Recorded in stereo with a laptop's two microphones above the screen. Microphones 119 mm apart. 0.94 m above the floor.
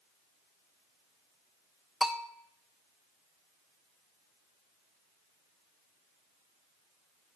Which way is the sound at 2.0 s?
Centre (ahead or behind).